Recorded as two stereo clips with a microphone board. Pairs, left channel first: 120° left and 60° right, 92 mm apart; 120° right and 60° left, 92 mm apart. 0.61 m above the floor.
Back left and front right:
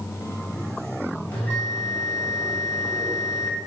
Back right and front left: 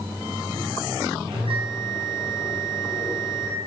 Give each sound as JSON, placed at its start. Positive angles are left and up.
{"t": 1.3, "sound": "a bell", "azimuth_deg": 50, "distance_m": 3.5}